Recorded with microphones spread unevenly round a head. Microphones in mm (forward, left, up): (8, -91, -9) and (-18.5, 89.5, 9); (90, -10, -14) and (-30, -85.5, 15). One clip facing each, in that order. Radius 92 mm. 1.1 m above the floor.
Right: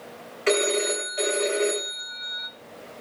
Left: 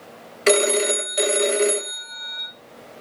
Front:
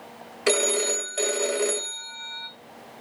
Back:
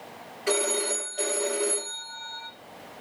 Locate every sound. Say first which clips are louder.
0.5 s a phone ringing: left 4 dB, front 3 dB; 70° left, 0.6 m